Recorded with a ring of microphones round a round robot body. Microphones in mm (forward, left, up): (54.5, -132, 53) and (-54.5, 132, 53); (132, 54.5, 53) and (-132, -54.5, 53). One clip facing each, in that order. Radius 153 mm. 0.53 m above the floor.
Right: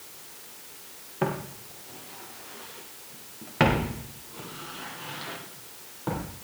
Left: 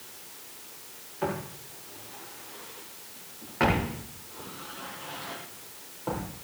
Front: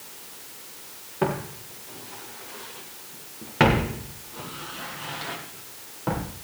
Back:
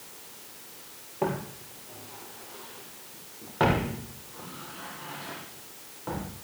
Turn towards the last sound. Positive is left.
turn(degrees=-5)